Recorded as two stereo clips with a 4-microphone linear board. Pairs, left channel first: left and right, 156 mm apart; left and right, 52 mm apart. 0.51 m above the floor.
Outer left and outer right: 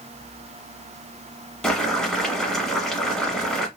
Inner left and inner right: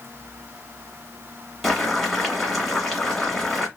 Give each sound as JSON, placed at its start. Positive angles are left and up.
{"t": 1.6, "sound": "boiling", "side_deg": 5, "distance_m": 1.1}